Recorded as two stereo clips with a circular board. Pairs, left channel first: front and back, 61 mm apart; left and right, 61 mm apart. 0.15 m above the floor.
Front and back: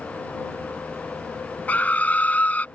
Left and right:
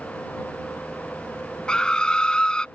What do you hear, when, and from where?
1.7 s a scream: 30° left